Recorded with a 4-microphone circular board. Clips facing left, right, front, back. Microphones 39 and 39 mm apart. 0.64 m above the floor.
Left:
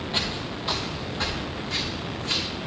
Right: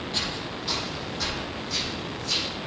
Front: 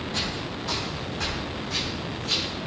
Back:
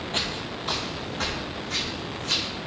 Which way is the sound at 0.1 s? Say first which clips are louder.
Left 3 dB, back 2 dB; 150° left.